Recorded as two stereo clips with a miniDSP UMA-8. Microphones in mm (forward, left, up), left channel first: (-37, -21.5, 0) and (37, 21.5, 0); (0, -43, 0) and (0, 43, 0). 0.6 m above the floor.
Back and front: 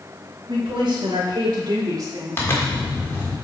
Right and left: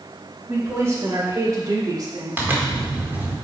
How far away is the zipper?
About 1.5 m.